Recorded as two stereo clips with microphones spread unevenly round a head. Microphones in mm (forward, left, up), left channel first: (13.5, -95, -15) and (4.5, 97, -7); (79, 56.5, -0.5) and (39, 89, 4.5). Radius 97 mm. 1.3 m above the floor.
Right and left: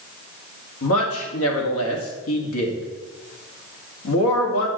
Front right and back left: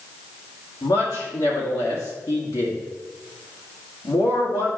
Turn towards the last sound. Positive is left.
turn(degrees=-75)